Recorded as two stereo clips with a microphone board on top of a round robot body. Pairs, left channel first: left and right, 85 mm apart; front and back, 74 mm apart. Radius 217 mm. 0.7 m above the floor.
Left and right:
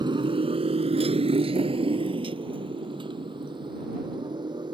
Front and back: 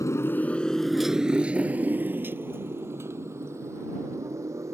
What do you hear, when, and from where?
0.0 s a motorcycle: 50° right; by 4.8 s 130° right